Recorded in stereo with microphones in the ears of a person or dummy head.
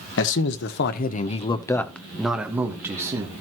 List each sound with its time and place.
0.2 s a man speaking: 80° left, 1.3 m; by 3.4 s 20° right (ahead or behind), 2.0 m